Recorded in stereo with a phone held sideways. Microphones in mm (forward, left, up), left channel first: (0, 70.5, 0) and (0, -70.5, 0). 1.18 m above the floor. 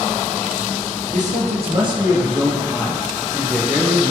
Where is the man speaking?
60° right (ahead or behind), 0.8 m; by 4.1 s 5° left (ahead or behind), 1.9 m.